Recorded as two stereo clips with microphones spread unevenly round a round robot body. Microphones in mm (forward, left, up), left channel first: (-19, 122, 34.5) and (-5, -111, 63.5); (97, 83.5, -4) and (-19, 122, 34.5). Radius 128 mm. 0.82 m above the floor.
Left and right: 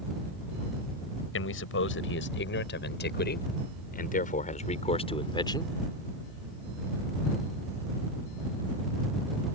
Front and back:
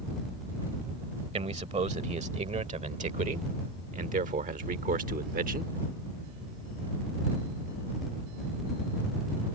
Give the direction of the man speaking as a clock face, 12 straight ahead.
8 o'clock.